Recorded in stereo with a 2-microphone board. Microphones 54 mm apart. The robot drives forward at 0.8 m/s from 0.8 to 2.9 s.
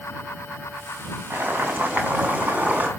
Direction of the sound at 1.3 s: 35° right (ahead or behind).